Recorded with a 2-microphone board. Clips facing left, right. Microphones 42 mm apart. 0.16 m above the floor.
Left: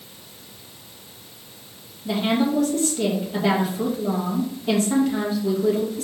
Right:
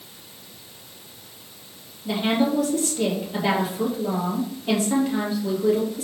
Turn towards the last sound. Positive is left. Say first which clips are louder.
# even
turn(degrees=-5)  # may be behind; listen again after turning